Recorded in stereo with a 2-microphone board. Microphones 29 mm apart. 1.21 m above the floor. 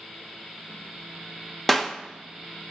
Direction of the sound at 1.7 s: 10° left (ahead or behind).